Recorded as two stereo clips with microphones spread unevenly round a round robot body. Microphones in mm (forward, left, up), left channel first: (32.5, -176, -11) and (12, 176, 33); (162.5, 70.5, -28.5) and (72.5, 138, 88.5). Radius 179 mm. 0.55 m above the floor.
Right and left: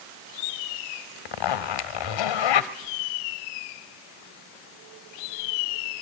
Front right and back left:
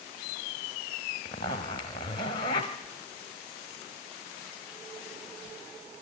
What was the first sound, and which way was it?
A zipper, 120° right.